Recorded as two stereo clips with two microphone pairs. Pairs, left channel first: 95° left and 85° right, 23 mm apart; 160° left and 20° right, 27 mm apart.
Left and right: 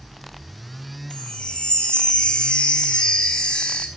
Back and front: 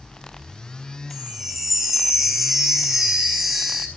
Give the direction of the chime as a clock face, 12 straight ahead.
10 o'clock.